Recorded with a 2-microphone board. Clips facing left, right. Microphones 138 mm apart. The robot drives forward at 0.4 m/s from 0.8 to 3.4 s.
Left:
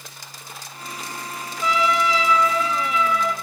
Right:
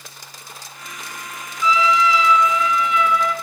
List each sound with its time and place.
1.6 s a trumpet: 50° left (ahead or behind), 1.1 m; by 3.3 s 40° left (ahead or behind), 1.4 m